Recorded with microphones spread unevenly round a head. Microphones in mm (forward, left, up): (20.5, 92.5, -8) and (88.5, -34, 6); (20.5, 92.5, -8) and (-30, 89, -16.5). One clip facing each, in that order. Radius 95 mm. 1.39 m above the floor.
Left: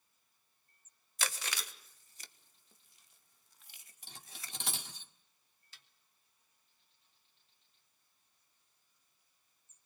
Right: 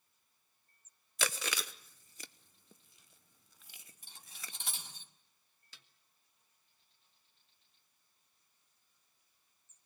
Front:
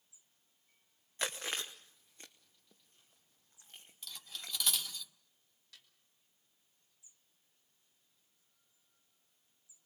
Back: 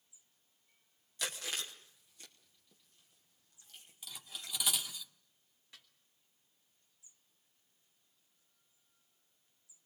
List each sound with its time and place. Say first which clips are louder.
1.2 s chewing: right 3 dB, front 2 dB; 80° right, 1.0 m
4.0 s cutlery clinking: left 2 dB, even; 100° left, 1.8 m
5.7 s a snare drum: right 2 dB, back 2 dB; 95° right, 1.4 m